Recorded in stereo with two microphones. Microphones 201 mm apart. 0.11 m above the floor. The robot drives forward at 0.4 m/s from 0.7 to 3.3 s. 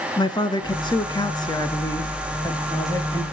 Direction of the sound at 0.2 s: 20° left (ahead or behind).